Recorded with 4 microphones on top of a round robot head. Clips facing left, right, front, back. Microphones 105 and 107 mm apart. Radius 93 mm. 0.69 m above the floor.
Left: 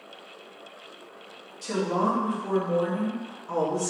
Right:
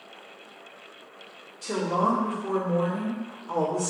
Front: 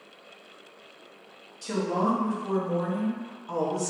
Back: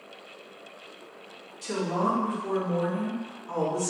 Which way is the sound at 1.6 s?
45° left.